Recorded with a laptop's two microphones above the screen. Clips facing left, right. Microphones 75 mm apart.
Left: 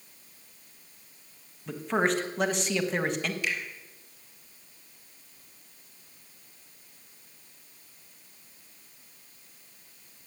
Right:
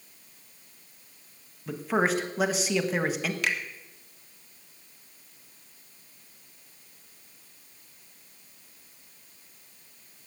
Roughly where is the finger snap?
Right.